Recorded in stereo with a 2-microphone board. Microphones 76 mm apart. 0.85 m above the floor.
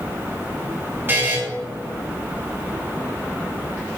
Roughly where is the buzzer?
Right.